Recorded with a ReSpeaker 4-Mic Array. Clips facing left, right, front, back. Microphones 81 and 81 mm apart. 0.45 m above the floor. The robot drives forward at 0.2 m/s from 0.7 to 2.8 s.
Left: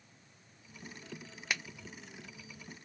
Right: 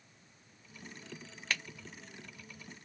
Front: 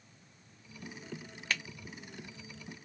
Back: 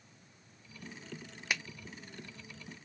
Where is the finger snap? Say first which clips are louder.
Even, even; 135° left, 0.5 m; by 1.6 s 140° left, 0.5 m.